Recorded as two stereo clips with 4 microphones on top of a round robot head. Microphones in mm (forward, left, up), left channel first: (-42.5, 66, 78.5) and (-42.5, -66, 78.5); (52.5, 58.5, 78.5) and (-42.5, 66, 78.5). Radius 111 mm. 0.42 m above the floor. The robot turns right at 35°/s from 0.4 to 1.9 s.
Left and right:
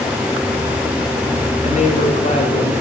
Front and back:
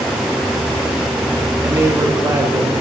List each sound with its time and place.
1.6 s a woman speaking: 115° left, 2.5 m; by 2.7 s 125° left, 2.5 m